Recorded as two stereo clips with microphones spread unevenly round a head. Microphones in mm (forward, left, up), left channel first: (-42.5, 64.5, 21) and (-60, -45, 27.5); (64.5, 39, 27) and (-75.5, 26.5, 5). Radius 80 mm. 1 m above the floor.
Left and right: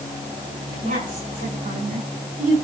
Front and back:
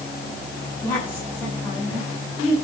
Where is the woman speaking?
70° right, 9.5 m; by 2.5 s 75° right, 8.5 m.